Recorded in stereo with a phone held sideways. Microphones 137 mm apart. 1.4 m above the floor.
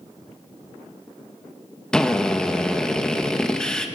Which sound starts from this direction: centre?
A drill, at 1.9 s.